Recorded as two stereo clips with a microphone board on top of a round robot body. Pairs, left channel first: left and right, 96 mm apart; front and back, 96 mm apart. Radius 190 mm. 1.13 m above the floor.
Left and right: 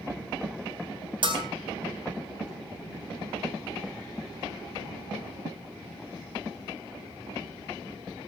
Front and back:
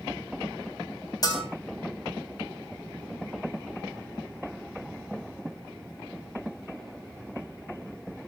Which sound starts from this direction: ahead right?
A bell, at 1.2 s.